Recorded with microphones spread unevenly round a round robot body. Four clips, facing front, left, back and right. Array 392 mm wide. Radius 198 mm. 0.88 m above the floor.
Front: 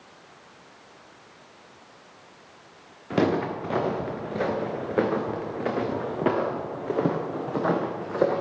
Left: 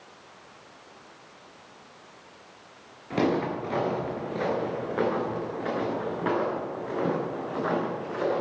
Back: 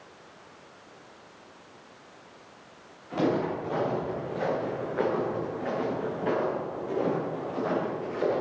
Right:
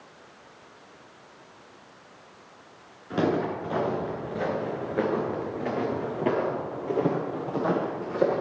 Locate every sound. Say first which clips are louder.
3.1 s footsteps: even, front 3 dB; 10° left, 5.5 m; by 8.4 s 25° right, 5 m